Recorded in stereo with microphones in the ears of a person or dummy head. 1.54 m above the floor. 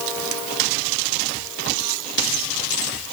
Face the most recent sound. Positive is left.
No sound to turn to.